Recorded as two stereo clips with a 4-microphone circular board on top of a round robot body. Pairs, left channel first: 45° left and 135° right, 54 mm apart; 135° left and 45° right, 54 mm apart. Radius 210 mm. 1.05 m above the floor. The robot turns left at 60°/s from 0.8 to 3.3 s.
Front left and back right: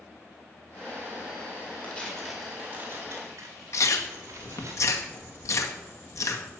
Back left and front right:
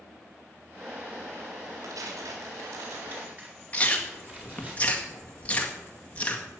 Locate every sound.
1.8 s tearing paper: 20° right, 3.5 m; by 4.7 s 105° right, 3.5 m
3.7 s chewing: 70° left, 1.8 m